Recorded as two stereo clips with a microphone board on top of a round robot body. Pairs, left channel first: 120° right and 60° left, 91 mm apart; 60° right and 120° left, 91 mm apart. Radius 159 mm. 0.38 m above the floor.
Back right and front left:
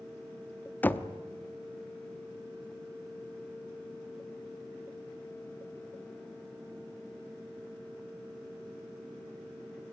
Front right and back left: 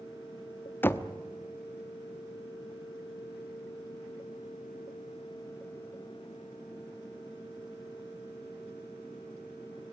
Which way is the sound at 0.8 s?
80° right.